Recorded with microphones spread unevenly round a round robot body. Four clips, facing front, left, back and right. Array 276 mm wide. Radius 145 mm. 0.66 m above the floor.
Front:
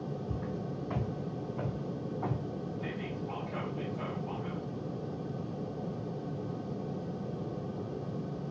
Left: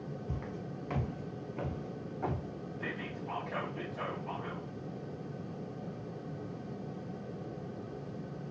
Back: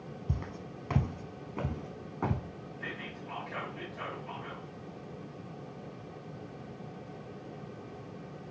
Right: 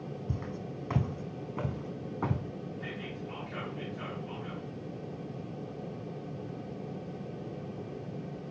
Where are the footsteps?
150° right, 1.5 m; by 2.4 s 130° right, 2.5 m.